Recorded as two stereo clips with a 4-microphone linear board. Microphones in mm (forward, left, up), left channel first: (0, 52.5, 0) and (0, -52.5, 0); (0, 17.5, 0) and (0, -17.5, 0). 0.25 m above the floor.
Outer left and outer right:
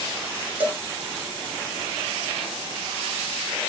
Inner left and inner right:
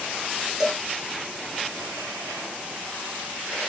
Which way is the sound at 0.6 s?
15° right (ahead or behind).